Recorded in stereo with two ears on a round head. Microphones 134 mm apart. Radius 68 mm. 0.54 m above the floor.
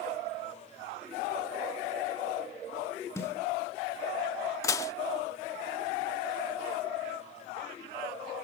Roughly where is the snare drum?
Left.